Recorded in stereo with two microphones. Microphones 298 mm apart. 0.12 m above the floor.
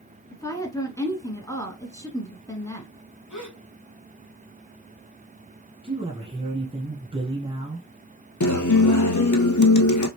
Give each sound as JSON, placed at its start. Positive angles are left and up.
{"t": 0.3, "sound": "a woman speaking", "side_deg": 10, "distance_m": 1.2}
{"t": 3.3, "sound": "a gasp", "side_deg": 70, "distance_m": 2.5}
{"t": 5.8, "sound": "a man speaking", "side_deg": -15, "distance_m": 1.1}
{"t": 8.4, "sound": "a guitar", "side_deg": 70, "distance_m": 0.7}